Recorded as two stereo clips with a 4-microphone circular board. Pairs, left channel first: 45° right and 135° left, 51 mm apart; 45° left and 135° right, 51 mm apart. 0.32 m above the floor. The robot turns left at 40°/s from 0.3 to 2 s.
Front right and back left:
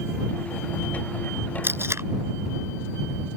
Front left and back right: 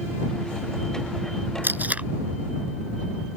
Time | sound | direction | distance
1.6 | tape being pulled | straight behind | ?